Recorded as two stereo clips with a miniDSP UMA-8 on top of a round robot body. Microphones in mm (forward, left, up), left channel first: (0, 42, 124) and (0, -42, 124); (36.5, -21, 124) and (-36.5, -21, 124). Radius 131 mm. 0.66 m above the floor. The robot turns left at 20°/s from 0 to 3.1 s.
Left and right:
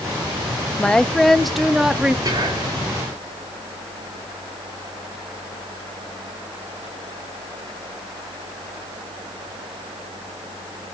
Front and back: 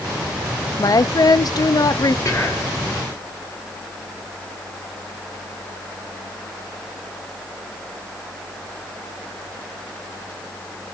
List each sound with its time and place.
0.8 s a woman speaking: 15° left, 0.8 m; by 2.1 s 15° right, 0.8 m
2.2 s whispering: 55° right, 3 m; by 2.7 s 65° right, 3 m